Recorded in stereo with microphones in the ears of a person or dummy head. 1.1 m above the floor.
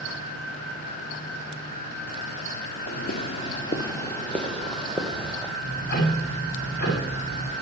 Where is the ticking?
55° left (ahead or behind), 8 m.